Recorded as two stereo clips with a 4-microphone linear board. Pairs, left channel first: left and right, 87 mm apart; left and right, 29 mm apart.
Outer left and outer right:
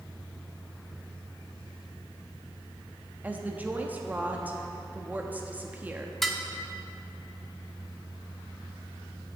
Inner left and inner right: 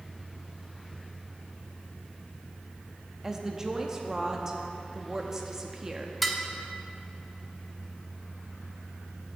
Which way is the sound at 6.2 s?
Centre (ahead or behind).